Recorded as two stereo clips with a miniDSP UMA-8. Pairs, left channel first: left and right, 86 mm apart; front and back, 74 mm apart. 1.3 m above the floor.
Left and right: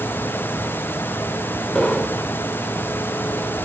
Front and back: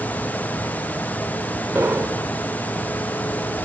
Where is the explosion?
165° left, 1.1 m.